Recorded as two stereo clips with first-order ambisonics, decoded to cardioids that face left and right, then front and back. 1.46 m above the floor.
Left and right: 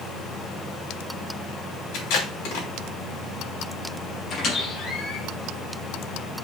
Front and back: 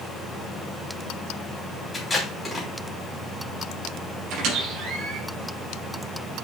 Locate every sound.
1.9 s tape being pulled: 80° left, 3 m
4.3 s a squeak: 140° left, 5 m